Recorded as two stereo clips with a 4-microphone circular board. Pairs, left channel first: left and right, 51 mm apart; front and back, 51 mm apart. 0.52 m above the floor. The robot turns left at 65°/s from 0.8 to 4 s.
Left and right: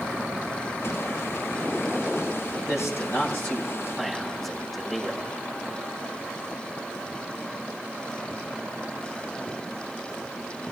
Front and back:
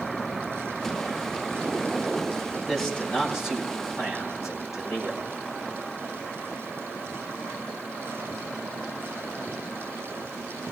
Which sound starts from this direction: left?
A man speaking, at 2.5 s.